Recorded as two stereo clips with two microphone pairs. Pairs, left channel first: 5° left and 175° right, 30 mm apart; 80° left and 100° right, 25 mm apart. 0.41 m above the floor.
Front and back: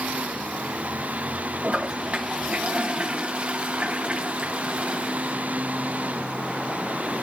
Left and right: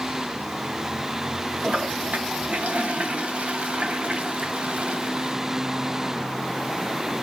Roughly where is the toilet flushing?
Behind right.